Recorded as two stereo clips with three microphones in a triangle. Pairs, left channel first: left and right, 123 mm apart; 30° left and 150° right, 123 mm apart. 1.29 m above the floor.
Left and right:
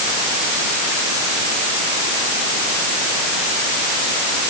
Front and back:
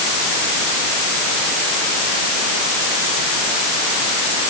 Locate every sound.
Only background noise.